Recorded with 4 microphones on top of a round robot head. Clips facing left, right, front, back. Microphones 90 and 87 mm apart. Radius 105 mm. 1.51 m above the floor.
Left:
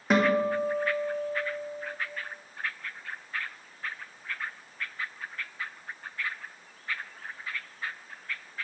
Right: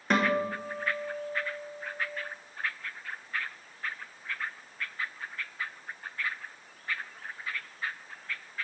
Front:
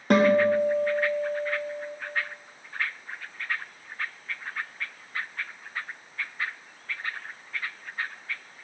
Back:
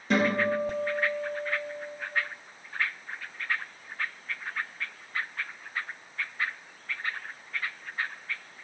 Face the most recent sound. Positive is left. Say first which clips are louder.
# left 3 dB, front 6 dB
turn(degrees=10)